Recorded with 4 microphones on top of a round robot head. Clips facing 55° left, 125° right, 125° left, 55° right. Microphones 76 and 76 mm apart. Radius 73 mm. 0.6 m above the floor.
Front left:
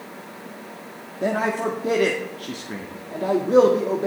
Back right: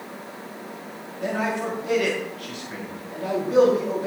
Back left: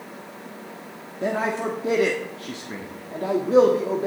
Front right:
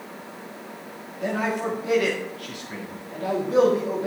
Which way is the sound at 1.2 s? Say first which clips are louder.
Front left 3 dB, back left 1 dB; 80° left.